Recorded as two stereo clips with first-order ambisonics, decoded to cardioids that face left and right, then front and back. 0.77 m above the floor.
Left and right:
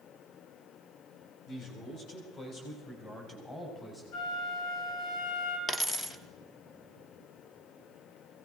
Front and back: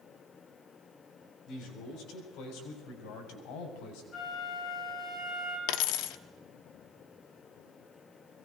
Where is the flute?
65° left, 6 m.